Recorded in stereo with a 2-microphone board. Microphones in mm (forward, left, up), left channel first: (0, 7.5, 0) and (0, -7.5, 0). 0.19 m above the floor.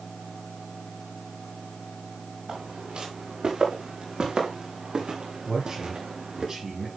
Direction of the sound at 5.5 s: 40° right (ahead or behind).